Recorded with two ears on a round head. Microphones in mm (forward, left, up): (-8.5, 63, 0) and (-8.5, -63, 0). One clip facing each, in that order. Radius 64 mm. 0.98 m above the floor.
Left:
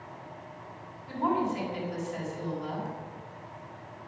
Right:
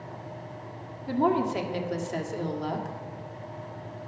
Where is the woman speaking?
65° right (ahead or behind), 1.6 m.